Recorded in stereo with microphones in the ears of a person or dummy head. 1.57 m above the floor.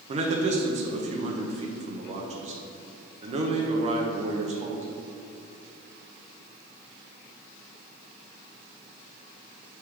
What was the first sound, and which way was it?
A man speaking, 40° right (ahead or behind).